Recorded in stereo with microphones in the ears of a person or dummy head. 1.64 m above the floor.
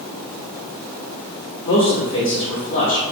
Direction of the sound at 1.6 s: 35° left (ahead or behind).